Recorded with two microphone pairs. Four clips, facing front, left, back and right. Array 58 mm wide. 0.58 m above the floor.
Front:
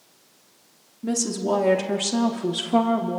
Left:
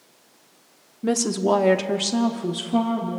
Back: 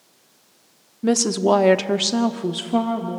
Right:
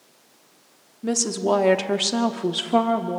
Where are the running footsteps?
I don't hear running footsteps.